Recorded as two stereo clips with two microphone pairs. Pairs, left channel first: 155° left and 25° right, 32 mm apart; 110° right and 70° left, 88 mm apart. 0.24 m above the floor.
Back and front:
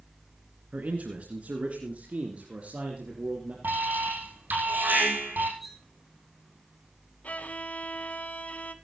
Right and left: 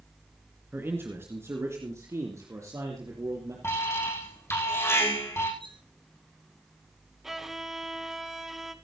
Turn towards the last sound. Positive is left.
turn(degrees=155)